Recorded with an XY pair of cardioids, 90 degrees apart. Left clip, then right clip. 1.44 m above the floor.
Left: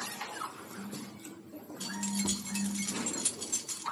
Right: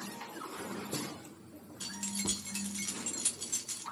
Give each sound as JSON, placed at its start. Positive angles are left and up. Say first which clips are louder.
{"t": 1.8, "sound": "keys jangling", "louder": "left 2 dB", "azimuth_deg": 5, "distance_m": 1.1}